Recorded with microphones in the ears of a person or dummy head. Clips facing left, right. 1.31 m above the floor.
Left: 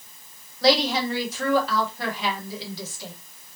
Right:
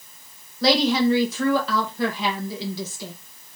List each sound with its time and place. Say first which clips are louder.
0.6 s a woman speaking: right 2 dB; 70° right (ahead or behind), 1.4 m